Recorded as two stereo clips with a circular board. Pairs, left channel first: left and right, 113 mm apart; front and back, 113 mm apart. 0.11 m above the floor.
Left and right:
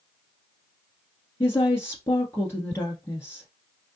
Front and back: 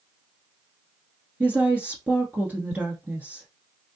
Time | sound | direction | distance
1.4 | a woman speaking | 120° left | 1.2 m